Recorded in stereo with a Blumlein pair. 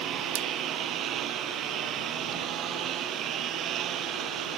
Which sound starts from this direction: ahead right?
A lawn mower, at 0.0 s.